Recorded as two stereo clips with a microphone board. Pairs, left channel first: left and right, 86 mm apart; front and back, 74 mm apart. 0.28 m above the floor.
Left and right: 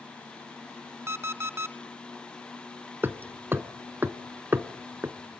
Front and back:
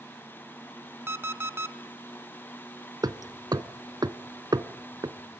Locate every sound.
1.1 s an alarm clock: 135° right, 0.9 m
3.0 s hammering: 155° right, 0.9 m